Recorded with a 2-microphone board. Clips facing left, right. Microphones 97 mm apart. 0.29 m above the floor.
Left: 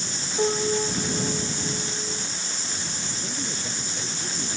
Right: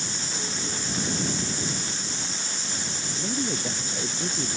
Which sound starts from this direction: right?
A woman speaking, at 3.1 s.